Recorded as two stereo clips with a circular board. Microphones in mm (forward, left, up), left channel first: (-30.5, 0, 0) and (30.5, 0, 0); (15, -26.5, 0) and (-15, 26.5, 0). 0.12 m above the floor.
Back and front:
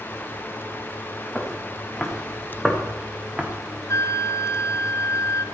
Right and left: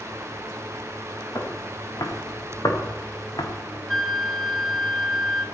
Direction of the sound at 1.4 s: 95° right.